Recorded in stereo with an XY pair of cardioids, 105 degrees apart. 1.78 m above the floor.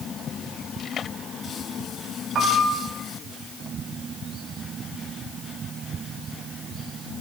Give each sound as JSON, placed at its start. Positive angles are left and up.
{"t": 2.4, "sound": "a piano", "azimuth_deg": -55, "distance_m": 6.0}